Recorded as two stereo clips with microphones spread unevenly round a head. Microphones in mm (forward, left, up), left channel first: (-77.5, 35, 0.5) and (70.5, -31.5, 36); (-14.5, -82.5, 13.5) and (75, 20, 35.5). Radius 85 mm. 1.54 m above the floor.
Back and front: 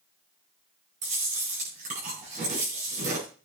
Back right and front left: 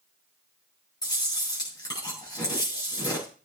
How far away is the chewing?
About 8.5 m.